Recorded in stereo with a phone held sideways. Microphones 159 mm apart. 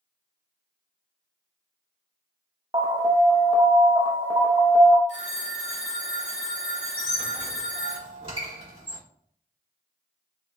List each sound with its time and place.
2.7 s an alarm: 30° right (ahead or behind), 0.6 m
5.1 s a phone ringing: 45° right (ahead or behind), 1.9 m
7.0 s a squeak: 35° right (ahead or behind), 1.6 m